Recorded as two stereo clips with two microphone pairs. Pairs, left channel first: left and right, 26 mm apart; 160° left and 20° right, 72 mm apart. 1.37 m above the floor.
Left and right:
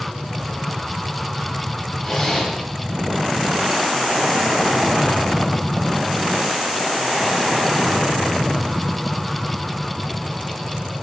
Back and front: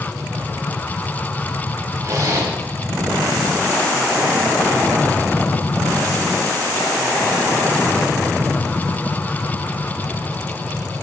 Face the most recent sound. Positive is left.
turn(degrees=15)